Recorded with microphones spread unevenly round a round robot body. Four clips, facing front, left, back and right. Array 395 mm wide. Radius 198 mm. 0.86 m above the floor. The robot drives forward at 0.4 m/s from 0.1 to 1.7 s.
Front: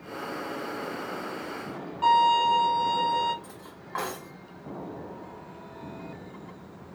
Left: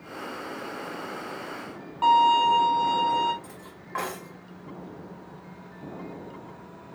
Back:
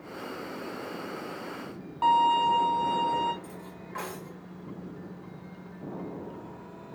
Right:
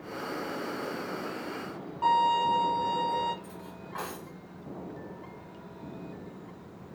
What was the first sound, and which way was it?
A violin, 130° left.